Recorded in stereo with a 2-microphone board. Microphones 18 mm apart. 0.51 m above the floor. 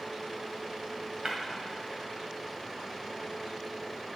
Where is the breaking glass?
45° right (ahead or behind), 1.6 m.